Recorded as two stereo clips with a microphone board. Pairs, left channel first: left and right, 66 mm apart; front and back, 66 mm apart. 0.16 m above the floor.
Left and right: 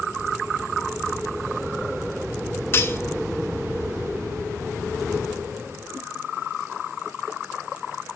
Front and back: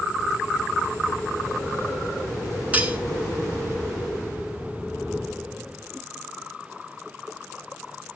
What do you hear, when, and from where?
2.7 s cutlery clinking: 120° left, 1.0 m